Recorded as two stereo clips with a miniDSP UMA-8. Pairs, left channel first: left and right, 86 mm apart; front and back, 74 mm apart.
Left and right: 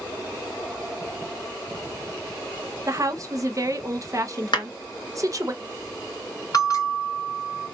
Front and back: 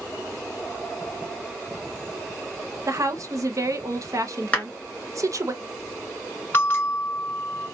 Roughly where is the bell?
Ahead left.